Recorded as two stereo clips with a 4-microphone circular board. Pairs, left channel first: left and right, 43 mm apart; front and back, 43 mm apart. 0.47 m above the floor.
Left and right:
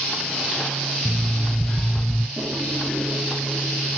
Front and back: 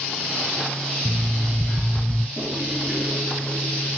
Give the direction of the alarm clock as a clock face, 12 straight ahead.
6 o'clock.